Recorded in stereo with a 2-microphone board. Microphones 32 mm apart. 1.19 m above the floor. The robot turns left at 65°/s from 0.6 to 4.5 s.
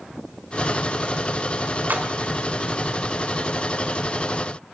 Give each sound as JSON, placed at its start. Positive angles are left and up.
{"t": 1.9, "sound": "a splash", "side_deg": -65, "distance_m": 1.7}